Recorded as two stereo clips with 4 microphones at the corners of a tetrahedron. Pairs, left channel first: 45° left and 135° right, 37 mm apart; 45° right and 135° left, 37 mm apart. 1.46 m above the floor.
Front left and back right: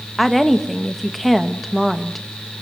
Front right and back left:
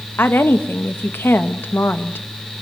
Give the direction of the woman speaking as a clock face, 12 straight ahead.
1 o'clock.